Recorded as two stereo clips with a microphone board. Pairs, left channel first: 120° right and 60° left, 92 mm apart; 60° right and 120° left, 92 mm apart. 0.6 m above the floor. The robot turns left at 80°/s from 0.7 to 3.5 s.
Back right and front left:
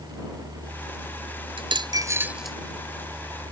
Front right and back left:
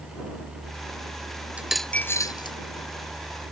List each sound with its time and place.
1.6 s a dropped coin: 45° left; by 2.6 s 35° right